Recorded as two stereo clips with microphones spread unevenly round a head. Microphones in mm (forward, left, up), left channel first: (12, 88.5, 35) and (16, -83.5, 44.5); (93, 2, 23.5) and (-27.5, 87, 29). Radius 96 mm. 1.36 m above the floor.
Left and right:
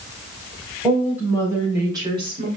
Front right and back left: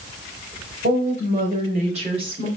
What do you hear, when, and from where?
0.8 s a woman speaking: 175° right, 5 m; by 2.5 s 150° right, 3.5 m